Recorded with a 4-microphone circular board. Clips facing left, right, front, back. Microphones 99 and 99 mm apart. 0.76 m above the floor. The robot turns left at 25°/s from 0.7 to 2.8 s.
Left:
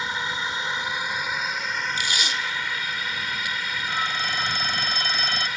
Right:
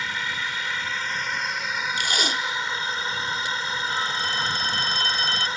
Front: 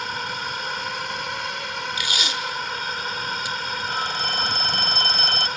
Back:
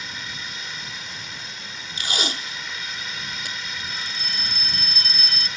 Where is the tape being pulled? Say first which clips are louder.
Right 2 dB, front 2 dB; 125° right; by 3.6 s 145° right.